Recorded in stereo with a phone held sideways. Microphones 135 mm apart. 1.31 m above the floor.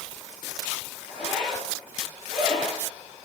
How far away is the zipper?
About 2 m.